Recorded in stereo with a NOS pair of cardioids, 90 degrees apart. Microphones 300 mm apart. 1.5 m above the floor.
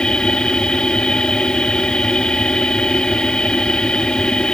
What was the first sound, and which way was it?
A machine running, 5° left.